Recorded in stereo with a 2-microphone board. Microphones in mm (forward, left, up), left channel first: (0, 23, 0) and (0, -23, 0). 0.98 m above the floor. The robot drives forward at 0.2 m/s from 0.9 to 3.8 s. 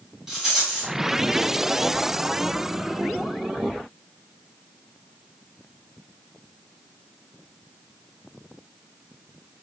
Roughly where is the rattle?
Centre.